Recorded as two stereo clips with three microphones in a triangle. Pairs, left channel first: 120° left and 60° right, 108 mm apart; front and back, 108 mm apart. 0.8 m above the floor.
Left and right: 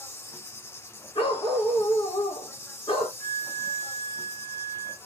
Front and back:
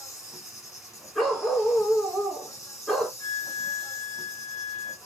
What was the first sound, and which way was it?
An insect, 55° left.